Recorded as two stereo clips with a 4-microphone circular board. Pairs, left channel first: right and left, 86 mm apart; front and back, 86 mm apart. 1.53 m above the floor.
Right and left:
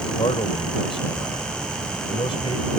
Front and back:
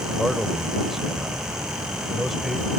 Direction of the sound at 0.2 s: 90° right.